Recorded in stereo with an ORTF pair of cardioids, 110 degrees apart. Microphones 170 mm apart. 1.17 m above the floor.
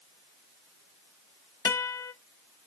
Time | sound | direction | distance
1.6 | a guitar | 20° left | 0.6 m